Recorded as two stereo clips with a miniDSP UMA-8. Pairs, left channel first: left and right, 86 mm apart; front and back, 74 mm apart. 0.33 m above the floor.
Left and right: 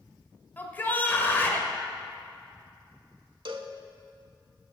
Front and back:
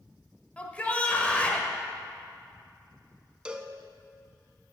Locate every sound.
0.6 s a shout: 50° left, 1.0 m
3.5 s a cowbell: 105° right, 0.5 m